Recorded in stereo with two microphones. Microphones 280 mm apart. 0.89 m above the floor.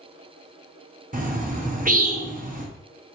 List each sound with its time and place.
1.1 s a bird: 30° right (ahead or behind), 0.6 m